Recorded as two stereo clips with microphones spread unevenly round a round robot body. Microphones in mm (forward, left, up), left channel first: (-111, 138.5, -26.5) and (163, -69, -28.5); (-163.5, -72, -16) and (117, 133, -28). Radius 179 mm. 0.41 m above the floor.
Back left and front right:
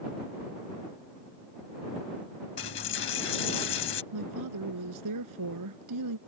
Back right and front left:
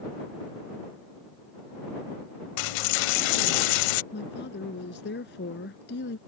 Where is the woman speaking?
80° right.